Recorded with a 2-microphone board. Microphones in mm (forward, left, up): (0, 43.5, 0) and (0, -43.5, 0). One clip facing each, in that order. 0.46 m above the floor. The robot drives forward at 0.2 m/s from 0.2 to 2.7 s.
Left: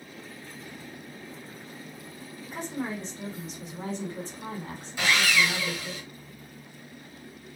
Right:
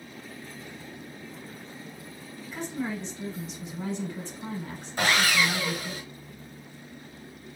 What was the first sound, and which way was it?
A woman speaking, 50° left (ahead or behind).